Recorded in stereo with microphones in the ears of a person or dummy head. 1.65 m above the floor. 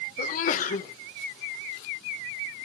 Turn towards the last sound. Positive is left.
turn(degrees=50)  # may be behind; listen again after turning